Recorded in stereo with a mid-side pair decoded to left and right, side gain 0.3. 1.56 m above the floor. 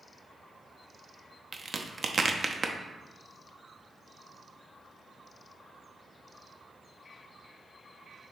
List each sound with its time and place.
1.5 s a crack: 50° right, 0.5 m